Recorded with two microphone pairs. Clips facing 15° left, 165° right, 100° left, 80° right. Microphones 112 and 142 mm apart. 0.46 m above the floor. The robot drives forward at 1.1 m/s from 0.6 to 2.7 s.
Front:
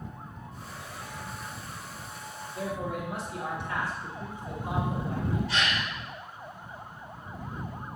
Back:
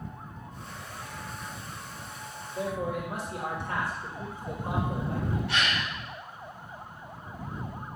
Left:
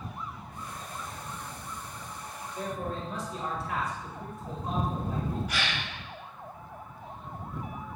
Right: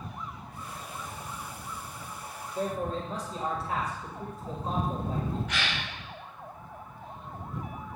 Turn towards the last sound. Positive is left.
turn(degrees=180)